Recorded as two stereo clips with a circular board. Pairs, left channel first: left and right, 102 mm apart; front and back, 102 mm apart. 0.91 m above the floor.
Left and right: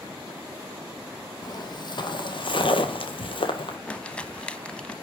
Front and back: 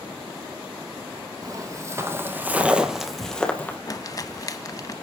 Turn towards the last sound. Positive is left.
turn(degrees=15)